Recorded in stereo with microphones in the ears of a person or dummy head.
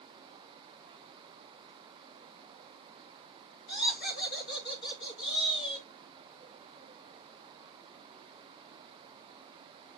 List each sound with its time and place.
3.7 s laughter: 65° left (ahead or behind), 4 m; by 5.9 s 70° left (ahead or behind), 2.5 m